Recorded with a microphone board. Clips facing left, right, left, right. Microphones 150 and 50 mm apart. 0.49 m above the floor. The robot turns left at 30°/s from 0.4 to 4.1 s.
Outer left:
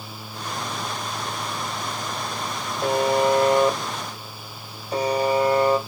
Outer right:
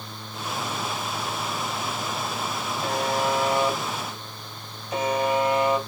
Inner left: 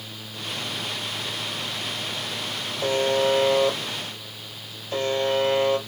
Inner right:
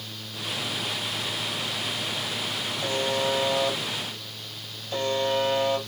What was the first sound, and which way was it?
A buzzer, 75° left.